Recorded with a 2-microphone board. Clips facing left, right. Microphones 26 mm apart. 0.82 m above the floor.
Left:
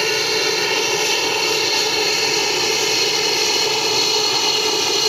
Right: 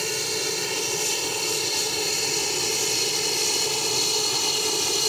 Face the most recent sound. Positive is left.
turn(degrees=30)  # may be behind; listen again after turning